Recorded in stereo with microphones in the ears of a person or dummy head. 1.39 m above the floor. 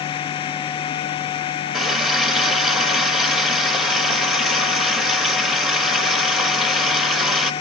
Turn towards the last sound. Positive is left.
turn(degrees=5)  # may be behind; listen again after turning